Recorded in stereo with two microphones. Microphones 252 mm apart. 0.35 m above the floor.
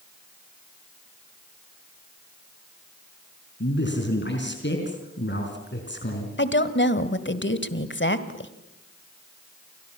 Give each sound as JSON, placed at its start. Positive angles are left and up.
{"t": 3.6, "sound": "a man speaking", "side_deg": 45, "distance_m": 4.5}
{"t": 6.4, "sound": "a woman speaking", "side_deg": 45, "distance_m": 1.8}